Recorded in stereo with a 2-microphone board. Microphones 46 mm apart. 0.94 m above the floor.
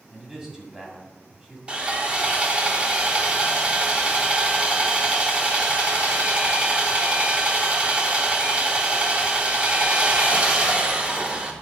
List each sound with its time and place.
0.1 s a man speaking: 10° right (ahead or behind), 2 m
1.7 s sawing: 30° right (ahead or behind), 1.0 m